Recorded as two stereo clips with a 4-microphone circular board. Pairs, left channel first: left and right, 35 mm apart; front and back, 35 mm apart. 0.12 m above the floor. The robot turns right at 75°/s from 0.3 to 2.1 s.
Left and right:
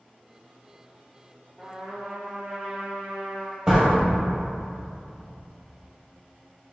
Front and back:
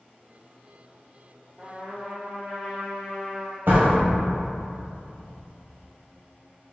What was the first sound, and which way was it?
A trumpet, 150° right.